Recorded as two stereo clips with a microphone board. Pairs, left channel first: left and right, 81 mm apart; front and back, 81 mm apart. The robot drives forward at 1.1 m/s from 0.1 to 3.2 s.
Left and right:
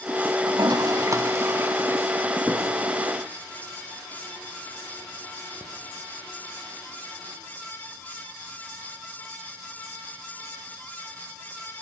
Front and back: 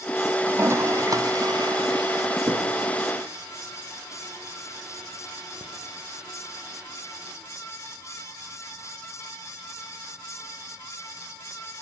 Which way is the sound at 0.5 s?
115° right.